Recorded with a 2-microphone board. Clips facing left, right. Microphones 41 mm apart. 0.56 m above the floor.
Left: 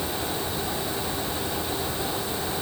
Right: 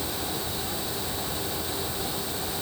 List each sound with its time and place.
Only background noise.